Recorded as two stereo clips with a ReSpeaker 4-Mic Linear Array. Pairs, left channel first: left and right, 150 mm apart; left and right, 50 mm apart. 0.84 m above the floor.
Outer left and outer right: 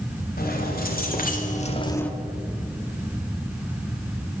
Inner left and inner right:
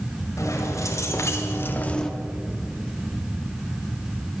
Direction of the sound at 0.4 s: 75° left (ahead or behind).